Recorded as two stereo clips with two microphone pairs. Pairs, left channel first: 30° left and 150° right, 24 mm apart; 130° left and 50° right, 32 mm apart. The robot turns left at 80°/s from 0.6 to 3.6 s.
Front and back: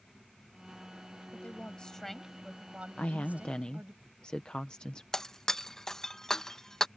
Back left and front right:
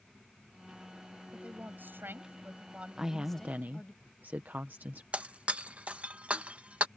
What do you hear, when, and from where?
1.3 s a woman speaking: 15° left; by 4.0 s 170° right
3.0 s a woman speaking: 30° left; by 5.0 s 20° right
5.1 s breaking glass: 25° right